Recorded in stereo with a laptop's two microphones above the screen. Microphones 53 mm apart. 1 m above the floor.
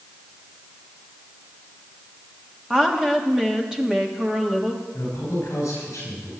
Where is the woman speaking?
15° right (ahead or behind), 1.4 m.